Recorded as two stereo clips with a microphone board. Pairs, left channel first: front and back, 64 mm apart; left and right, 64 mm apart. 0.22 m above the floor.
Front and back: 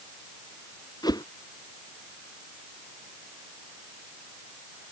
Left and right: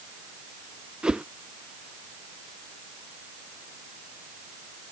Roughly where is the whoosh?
Ahead.